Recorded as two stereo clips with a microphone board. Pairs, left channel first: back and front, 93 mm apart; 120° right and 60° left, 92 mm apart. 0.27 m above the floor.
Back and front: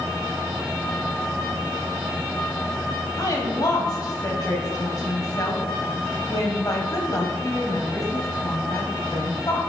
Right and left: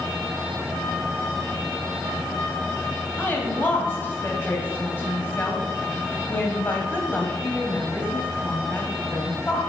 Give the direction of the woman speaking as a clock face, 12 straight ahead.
6 o'clock.